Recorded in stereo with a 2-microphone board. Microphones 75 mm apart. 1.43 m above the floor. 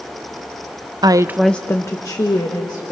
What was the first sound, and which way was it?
A woman speaking, 60° right (ahead or behind).